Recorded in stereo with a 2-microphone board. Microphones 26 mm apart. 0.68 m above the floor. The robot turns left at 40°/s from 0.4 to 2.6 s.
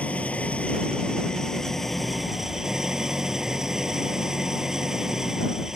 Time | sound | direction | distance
0.0 | an engine running | 65° left | ?